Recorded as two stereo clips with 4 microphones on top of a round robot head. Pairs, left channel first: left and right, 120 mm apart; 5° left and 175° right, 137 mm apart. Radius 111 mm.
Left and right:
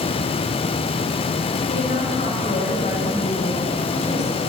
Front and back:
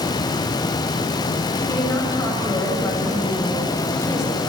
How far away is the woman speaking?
About 7 m.